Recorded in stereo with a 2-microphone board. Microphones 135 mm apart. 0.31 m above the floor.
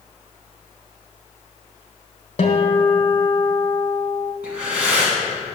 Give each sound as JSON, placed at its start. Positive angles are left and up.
{"t": 2.4, "sound": "a guitar", "side_deg": 55, "distance_m": 1.2}
{"t": 4.4, "sound": "breathing", "side_deg": -10, "distance_m": 2.0}